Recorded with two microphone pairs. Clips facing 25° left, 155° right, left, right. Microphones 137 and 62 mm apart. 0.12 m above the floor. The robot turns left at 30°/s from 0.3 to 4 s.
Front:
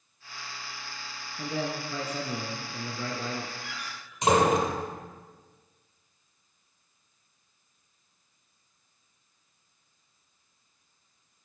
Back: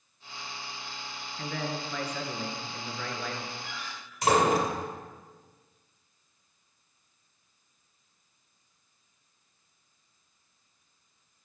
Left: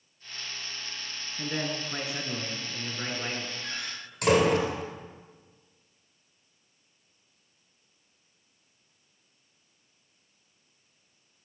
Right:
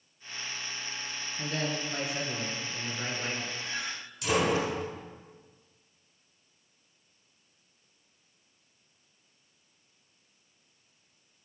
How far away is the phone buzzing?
I don't hear a phone buzzing.